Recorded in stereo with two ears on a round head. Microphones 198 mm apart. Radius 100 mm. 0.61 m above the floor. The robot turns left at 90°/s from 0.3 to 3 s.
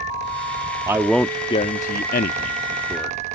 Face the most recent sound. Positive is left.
turn(degrees=5)  # may be behind; listen again after turning